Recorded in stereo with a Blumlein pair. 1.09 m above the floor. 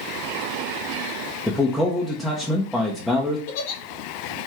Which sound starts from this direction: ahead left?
A giggle, at 3.5 s.